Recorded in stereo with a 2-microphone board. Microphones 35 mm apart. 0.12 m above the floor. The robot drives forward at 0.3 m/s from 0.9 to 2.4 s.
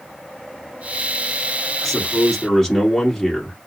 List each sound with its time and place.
1.8 s a man speaking: 15° left (ahead or behind), 1.3 m